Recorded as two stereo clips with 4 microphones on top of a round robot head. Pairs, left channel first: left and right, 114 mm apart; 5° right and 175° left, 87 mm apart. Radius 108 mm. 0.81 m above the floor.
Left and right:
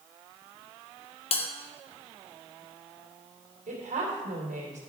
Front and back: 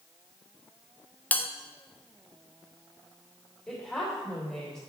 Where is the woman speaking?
90° right, 2.5 m.